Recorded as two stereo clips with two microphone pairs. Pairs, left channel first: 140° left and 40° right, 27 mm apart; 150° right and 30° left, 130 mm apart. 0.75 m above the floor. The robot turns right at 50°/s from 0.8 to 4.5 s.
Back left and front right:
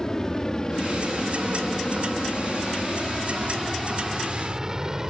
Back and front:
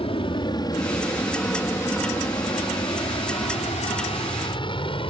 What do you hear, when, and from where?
0.0 s an aircraft: 160° right; by 5.1 s 110° right